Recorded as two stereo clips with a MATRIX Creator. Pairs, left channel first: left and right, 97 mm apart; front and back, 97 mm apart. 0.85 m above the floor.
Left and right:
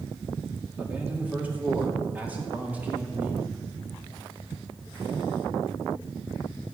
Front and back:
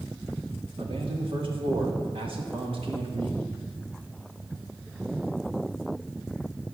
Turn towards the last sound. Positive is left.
turn(degrees=-165)